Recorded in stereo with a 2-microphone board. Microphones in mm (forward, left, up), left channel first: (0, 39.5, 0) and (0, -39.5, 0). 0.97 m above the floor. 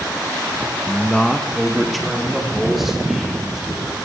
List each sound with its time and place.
0.9 s a man speaking: 15° left (ahead or behind), 1.0 m; by 4.0 s 5° right (ahead or behind), 5.5 m